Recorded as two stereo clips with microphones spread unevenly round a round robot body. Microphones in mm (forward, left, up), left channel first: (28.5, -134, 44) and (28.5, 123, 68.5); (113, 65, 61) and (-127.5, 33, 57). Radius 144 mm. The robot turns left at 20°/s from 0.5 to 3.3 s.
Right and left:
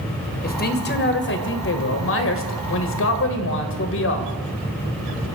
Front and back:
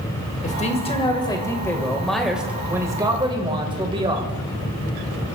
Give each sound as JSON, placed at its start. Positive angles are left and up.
{"t": 0.4, "sound": "a man speaking", "azimuth_deg": -50, "distance_m": 2.0}